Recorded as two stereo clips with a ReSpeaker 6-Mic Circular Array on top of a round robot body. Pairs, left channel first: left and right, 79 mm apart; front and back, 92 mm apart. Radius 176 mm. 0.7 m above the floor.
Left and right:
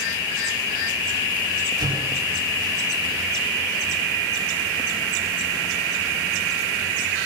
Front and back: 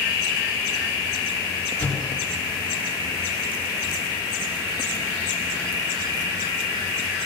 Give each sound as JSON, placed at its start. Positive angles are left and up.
{"t": 1.8, "sound": "an explosion", "azimuth_deg": -75, "distance_m": 9.0}